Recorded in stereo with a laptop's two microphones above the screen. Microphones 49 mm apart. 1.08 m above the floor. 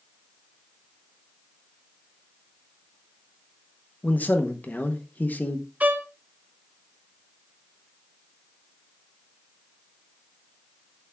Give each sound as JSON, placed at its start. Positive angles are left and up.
{"t": 4.0, "sound": "a man speaking", "side_deg": 40, "distance_m": 0.8}
{"t": 5.8, "sound": "a violin", "side_deg": -35, "distance_m": 0.8}